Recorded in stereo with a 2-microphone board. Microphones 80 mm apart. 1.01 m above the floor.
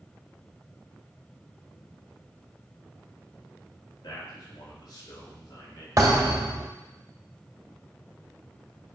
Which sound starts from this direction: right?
A thud, at 6.0 s.